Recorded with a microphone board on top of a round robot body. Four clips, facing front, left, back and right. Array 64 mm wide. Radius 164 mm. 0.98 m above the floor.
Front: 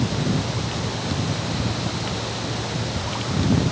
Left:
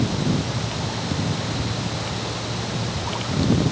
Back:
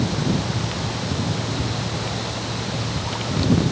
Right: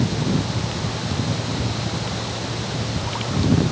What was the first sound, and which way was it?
Only background noise.